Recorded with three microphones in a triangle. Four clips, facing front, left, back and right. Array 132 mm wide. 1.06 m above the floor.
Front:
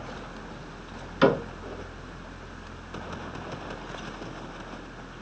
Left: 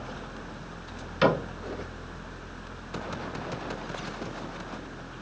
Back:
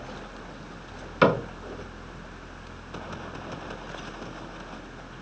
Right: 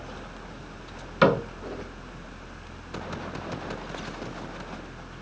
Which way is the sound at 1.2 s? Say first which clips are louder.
Right 3 dB, even; 145° right.